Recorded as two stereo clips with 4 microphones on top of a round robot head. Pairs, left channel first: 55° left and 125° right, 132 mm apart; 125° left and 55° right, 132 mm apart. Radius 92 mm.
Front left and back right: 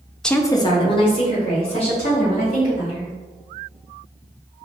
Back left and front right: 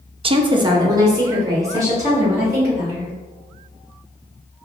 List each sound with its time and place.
0.2 s a woman speaking: 30° right, 0.6 m; by 3.1 s 15° left, 4.5 m